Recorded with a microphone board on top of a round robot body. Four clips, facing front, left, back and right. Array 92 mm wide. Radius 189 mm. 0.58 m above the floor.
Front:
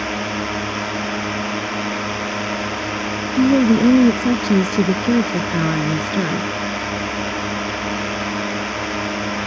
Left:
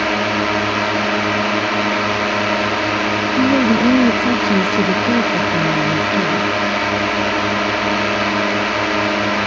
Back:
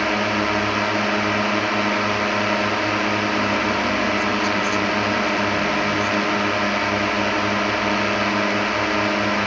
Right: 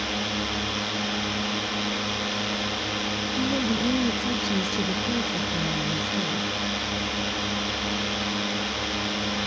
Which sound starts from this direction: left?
A drone, at 0.0 s.